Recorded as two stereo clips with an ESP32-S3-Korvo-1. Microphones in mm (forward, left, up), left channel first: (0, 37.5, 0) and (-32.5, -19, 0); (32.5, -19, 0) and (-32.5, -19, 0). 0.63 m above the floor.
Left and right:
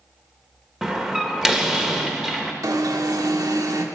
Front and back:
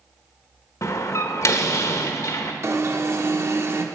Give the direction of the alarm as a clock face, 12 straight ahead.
5 o'clock.